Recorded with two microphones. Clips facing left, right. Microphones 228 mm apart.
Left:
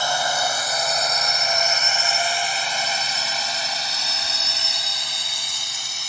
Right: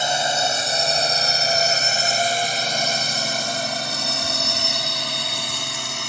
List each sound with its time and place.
0.0 s a drone: 20° right (ahead or behind); by 6.1 s 70° right (ahead or behind)